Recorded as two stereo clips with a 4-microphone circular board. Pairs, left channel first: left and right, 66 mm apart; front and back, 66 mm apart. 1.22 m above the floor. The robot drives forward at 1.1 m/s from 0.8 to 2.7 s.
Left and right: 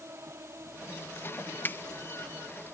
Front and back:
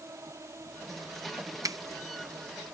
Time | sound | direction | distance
0.0 | an insect | 135° right | ?
1.6 | a finger snap | 145° left | ?